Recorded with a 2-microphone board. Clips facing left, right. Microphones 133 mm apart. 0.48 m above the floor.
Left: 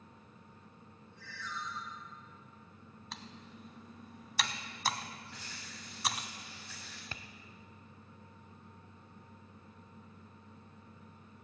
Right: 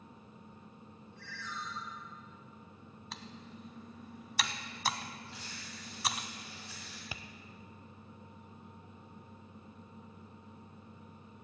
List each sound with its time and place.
1.2 s a ringtone: 60° right (ahead or behind), 5 m
3.1 s typing on a keyboard: centre (ahead or behind), 0.9 m
5.3 s a rattle: 25° right (ahead or behind), 3.5 m
7.1 s tapping: 10° right (ahead or behind), 0.6 m